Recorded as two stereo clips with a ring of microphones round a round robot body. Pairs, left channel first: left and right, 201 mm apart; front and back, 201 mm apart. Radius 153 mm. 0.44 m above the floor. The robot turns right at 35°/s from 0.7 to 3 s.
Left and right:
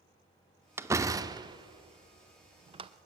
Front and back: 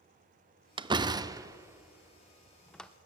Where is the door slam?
150° right, 0.6 m; by 2.9 s 80° right, 0.6 m.